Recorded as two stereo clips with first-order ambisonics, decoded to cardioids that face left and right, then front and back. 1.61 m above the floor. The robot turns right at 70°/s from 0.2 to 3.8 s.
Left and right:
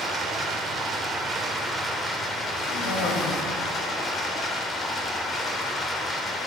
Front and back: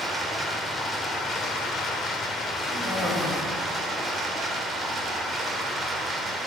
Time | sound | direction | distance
0.0 | running water | 115° right | 1.4 m
2.7 | a cough | 70° left | 2.5 m